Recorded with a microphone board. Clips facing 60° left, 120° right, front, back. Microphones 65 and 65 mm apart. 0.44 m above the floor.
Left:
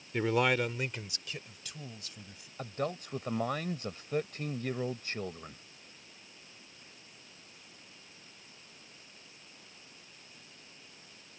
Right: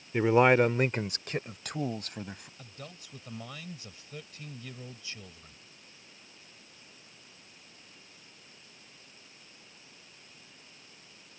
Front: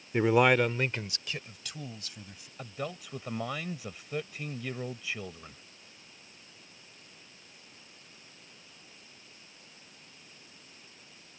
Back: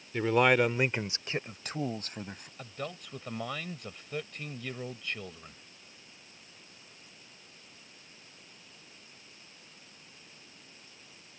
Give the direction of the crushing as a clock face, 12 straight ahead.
I don't hear crushing.